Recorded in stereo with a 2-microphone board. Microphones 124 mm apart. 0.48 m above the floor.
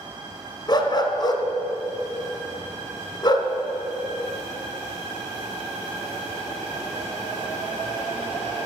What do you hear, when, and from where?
0.7 s a dog barking: 40° left (ahead or behind), 1.2 m